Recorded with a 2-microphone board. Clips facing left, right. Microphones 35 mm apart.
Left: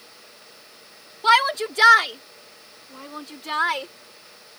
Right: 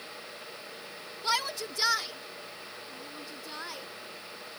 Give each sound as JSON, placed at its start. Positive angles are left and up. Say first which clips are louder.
{"t": 1.2, "sound": "a shout", "louder": "left 13 dB", "side_deg": 55}